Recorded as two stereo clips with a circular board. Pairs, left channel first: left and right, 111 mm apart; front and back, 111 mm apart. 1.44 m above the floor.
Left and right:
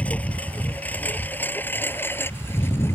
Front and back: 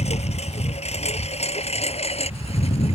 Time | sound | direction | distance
0.0 | a lawn mower | 15° left | ?